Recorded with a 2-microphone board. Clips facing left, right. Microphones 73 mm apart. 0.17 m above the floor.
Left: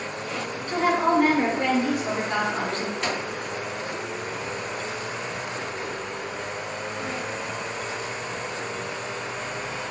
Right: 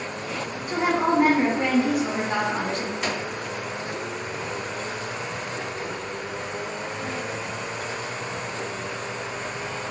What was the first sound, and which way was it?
A woman speaking, 15° right (ahead or behind).